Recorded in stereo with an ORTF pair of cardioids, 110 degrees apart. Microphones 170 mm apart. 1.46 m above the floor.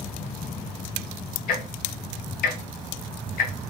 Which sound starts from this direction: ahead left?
Ticking, at 1.5 s.